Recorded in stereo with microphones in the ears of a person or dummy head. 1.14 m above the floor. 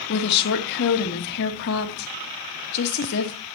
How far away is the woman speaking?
About 1.5 m.